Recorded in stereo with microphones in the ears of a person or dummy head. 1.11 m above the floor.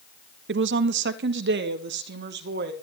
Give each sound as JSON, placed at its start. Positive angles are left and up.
{"t": 0.5, "sound": "a woman speaking", "side_deg": -50, "distance_m": 0.8}